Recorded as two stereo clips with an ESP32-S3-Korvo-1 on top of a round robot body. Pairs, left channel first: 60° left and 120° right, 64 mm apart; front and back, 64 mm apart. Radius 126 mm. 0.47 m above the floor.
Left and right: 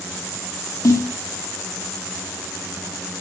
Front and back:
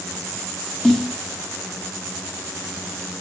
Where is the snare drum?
85° left, 3 m.